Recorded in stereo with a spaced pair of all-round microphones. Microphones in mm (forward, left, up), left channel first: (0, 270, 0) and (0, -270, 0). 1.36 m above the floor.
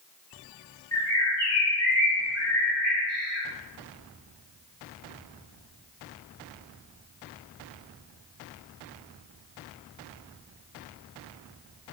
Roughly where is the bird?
Left.